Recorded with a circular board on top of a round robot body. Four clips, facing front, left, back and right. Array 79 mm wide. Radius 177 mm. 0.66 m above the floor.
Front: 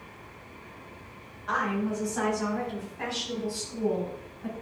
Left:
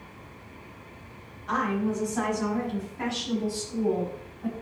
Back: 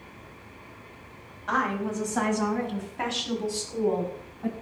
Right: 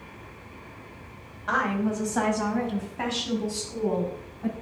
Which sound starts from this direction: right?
A woman speaking, at 1.5 s.